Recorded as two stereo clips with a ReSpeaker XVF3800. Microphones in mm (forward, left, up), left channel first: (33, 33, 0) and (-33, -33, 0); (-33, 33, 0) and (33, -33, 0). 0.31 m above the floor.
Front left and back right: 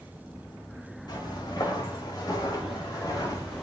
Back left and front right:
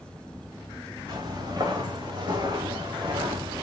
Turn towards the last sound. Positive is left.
turn(degrees=-10)